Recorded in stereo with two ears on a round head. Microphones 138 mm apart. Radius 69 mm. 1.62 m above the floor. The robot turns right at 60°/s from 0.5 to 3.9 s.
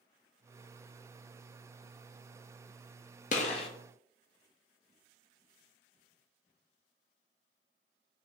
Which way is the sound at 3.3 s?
50° left (ahead or behind).